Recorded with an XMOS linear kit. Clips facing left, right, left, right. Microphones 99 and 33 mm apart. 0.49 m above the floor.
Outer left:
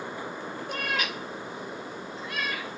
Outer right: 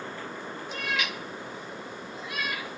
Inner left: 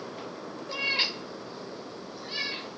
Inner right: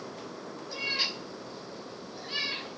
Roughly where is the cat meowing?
Left.